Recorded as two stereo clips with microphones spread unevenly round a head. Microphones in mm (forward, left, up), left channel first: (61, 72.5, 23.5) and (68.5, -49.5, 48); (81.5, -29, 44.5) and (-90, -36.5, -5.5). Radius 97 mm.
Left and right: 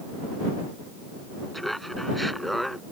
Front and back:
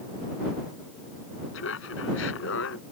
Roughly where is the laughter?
Ahead.